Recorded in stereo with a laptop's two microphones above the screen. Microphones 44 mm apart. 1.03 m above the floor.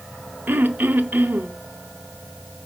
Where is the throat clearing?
45° right (ahead or behind), 1.0 m.